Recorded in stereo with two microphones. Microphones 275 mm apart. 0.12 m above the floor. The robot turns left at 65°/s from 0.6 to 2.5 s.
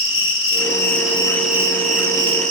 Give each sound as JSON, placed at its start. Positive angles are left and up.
{"t": 0.0, "sound": "an insect", "azimuth_deg": 55, "distance_m": 1.2}